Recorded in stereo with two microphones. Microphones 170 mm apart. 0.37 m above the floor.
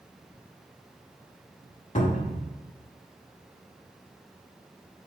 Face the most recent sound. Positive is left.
turn(degrees=45)  # may be behind; listen again after turning